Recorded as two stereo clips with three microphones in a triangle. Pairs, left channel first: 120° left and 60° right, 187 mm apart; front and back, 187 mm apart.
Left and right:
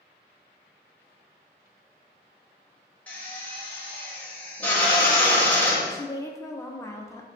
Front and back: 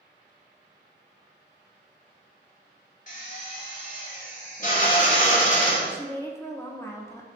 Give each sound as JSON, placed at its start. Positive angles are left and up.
{"t": 3.1, "sound": "a drill", "azimuth_deg": 40, "distance_m": 0.9}
{"t": 5.9, "sound": "a woman speaking", "azimuth_deg": 60, "distance_m": 0.5}